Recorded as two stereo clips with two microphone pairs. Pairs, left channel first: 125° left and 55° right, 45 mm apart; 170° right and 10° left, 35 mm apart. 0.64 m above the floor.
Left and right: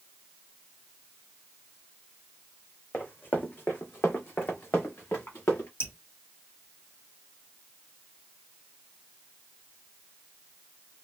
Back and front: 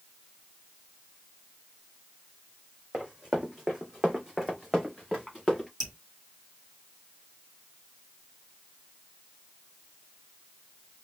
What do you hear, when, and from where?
2.9 s running footsteps: 70° left, 1.9 m; by 5.7 s 105° left, 3 m
5.8 s dripping: 95° left, 1.6 m